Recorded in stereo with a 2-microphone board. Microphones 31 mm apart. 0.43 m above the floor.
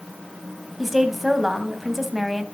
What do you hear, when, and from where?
0.8 s a woman speaking: 5° right (ahead or behind), 3 m